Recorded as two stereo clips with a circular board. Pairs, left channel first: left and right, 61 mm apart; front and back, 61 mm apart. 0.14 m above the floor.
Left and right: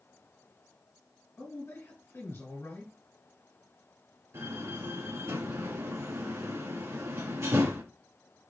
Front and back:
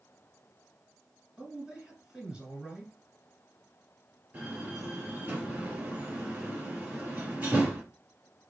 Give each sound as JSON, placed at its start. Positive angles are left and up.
{"t": 1.4, "sound": "a man speaking", "azimuth_deg": 105, "distance_m": 2.0}
{"t": 4.3, "sound": "a door slam", "azimuth_deg": -115, "distance_m": 2.5}